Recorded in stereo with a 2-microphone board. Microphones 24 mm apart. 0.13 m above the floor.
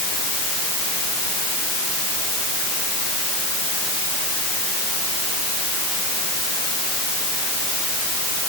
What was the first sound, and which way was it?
Only background noise.